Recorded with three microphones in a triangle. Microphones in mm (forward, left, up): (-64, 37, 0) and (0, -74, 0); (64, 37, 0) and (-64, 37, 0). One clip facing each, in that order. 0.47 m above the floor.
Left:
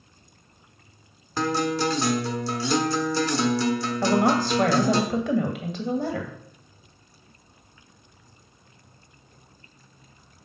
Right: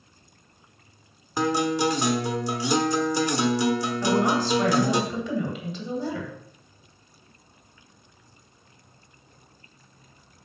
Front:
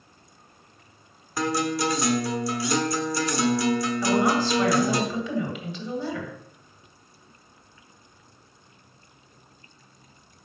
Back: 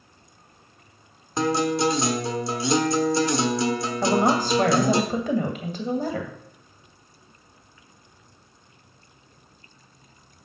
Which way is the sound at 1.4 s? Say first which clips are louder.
Right 1 dB, back 3 dB; 130° right.